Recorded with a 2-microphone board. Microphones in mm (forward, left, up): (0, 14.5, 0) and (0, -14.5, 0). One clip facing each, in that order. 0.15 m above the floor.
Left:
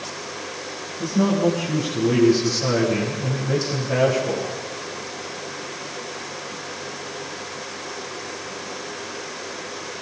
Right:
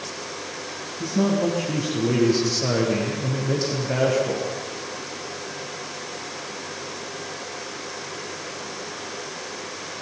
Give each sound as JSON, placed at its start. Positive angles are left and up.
{"t": 1.0, "sound": "a man speaking", "side_deg": -25, "distance_m": 8.0}